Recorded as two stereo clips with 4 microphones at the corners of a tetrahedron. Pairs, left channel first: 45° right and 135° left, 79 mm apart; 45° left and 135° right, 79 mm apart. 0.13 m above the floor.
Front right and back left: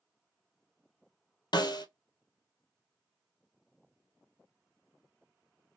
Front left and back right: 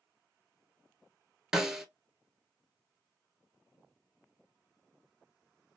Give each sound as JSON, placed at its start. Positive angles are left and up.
{"t": 1.5, "sound": "a snare drum", "azimuth_deg": -50, "distance_m": 0.6}